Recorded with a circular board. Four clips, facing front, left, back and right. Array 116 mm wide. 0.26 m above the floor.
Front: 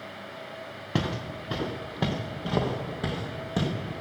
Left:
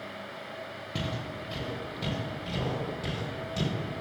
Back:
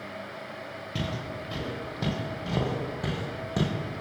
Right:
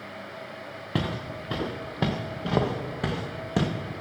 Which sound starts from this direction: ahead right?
Footsteps, at 0.9 s.